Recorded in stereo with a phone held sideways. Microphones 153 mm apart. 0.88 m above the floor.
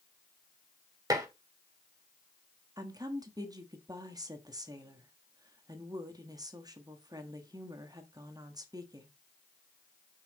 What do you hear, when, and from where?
1.1 s dishes clattering: 25° right (ahead or behind), 1.6 m
2.8 s a woman speaking: 25° right (ahead or behind), 1.4 m